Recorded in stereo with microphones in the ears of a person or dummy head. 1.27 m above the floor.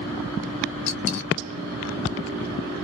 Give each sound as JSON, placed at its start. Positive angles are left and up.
{"t": 0.9, "sound": "a dropped coin", "side_deg": 55, "distance_m": 1.0}